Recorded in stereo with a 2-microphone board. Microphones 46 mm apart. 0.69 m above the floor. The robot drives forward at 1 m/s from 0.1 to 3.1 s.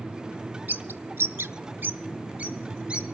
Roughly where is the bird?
Right.